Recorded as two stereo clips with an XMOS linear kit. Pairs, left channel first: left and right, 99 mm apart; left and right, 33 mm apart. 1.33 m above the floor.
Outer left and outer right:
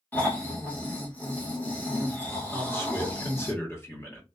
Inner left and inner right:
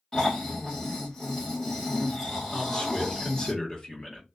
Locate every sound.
0.1 s snoring: 20° left (ahead or behind), 1.2 m
2.5 s a man speaking: 25° left (ahead or behind), 1.3 m